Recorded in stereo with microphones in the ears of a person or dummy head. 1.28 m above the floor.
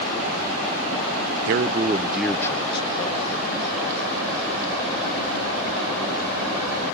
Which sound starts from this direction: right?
A man speaking, at 1.5 s.